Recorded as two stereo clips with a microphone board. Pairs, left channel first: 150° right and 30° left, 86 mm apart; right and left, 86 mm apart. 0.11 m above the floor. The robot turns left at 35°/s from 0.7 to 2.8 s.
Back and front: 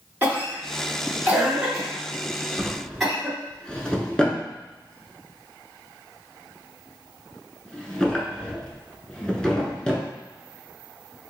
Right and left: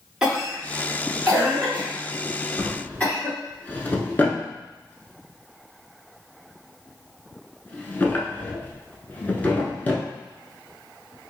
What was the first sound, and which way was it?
A cough, 10° left.